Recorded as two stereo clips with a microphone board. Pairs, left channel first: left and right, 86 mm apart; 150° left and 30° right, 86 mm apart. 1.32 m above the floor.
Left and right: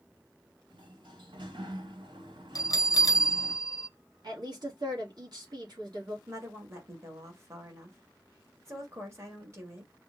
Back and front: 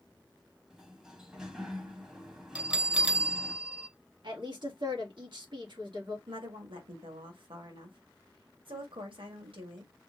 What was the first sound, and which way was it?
A sliding door, 115° right.